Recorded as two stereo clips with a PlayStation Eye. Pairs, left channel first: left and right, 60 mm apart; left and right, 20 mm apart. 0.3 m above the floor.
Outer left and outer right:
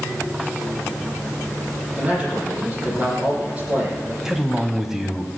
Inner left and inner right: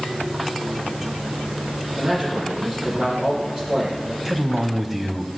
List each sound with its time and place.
2.0 s a man speaking: 25° right (ahead or behind), 9 m
4.2 s a man speaking: 5° right (ahead or behind), 1.8 m